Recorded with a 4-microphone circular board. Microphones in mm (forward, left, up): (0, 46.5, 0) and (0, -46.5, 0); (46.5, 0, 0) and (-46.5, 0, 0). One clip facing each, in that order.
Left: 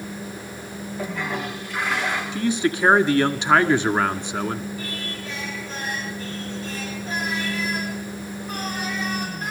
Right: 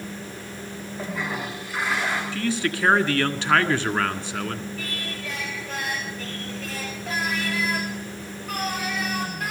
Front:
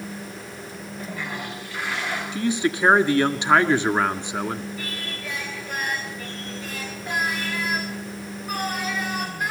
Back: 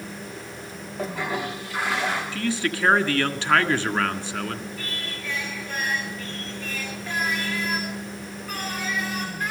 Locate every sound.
1.0 s a toilet flushing: 175° right, 9 m
2.3 s a man speaking: 45° left, 1.5 m
4.8 s singing: 75° right, 9 m